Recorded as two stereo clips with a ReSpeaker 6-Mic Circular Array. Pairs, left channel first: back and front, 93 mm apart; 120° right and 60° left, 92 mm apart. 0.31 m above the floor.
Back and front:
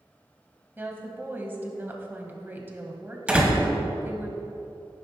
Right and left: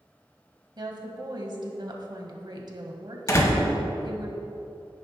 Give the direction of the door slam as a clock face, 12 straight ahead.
2 o'clock.